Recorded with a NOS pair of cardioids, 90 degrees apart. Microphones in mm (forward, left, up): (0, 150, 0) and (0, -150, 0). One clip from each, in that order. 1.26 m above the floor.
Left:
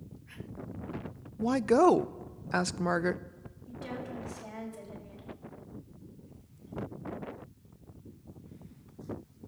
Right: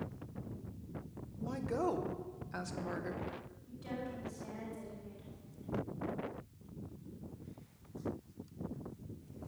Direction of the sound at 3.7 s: 60° left.